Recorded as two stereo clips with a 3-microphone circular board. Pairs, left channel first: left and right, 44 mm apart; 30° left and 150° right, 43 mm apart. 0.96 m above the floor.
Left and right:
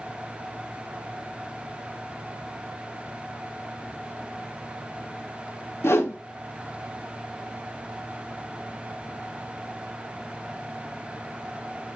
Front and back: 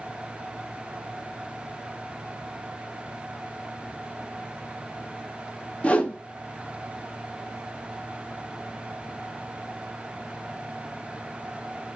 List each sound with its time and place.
5.8 s a whoosh: 90° left, 0.7 m